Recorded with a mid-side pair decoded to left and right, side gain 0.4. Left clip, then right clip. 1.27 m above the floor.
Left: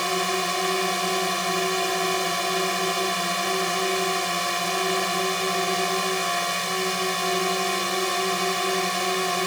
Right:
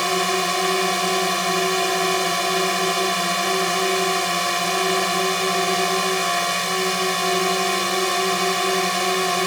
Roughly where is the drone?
Ahead right.